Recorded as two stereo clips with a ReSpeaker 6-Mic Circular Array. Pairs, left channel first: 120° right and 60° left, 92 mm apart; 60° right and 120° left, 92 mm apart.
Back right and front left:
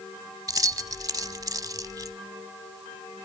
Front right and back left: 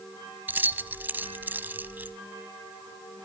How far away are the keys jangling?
About 0.8 m.